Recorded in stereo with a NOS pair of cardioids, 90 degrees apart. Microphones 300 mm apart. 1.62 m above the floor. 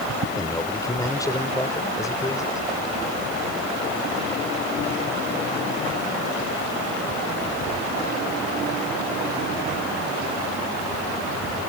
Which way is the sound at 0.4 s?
10° left.